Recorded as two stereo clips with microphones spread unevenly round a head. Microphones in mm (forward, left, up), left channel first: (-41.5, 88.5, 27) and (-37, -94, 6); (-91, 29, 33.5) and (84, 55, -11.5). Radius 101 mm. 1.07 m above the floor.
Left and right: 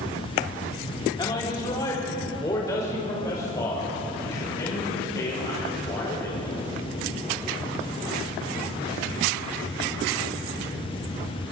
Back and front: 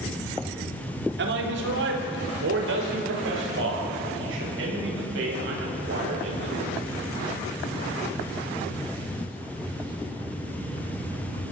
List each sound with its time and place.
1.2 s a man speaking: 20° left, 3.5 m; by 6.7 s 15° left, 9 m